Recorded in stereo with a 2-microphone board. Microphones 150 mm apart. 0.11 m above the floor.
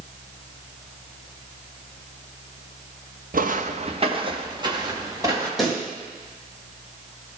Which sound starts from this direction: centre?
A pop, at 5.6 s.